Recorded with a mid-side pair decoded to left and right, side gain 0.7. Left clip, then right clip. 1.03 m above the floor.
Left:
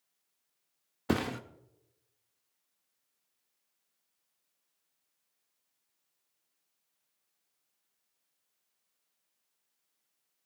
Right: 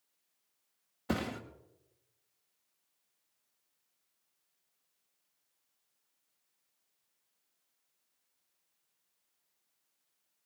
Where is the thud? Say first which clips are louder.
Left 4 dB; 30° left, 1.2 m.